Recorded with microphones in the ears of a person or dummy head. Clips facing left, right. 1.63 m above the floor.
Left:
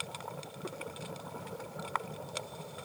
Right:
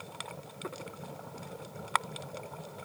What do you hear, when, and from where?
Only background noise.